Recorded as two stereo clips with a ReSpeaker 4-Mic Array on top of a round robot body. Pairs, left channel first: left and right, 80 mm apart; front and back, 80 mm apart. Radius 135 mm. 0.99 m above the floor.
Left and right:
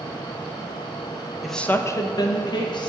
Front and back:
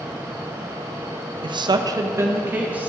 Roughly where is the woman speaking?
Behind.